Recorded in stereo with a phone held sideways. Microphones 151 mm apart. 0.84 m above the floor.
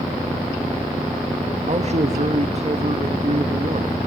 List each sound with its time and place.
1.7 s a man speaking: 45° right (ahead or behind), 1.2 m